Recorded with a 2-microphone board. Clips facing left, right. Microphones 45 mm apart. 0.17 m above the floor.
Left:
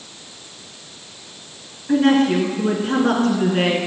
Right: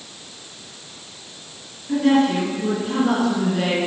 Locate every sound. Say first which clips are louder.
1.9 s a woman speaking: left 2 dB; 45° left (ahead or behind), 2 m